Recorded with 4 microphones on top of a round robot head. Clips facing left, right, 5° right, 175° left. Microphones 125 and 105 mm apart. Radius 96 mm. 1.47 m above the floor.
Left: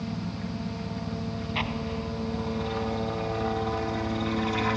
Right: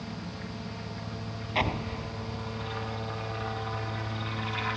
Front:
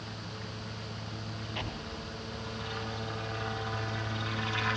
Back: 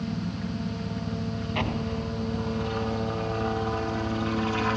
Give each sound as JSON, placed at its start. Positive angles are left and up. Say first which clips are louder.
{"t": 0.0, "sound": "a helicopter", "louder": "left 6 dB, back 11 dB", "azimuth_deg": 150}
{"t": 1.6, "sound": "an explosion", "louder": "right 3 dB, back 12 dB", "azimuth_deg": -135}